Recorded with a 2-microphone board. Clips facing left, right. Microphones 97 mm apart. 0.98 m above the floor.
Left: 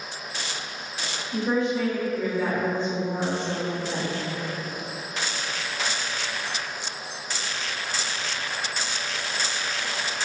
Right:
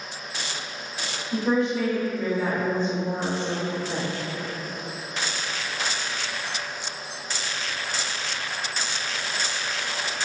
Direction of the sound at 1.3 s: 65° right (ahead or behind).